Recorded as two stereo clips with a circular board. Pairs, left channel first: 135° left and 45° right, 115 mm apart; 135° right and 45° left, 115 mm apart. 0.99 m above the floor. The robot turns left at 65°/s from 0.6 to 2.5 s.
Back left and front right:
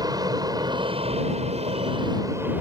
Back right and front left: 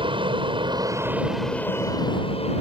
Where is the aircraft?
5° left; by 2.6 s 115° right.